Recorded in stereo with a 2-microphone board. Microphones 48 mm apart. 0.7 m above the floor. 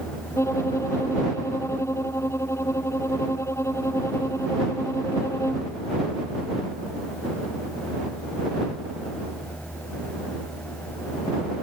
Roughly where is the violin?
Left.